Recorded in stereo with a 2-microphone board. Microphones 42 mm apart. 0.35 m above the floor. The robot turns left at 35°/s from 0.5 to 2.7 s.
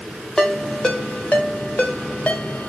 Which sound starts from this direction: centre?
A ringtone, at 0.4 s.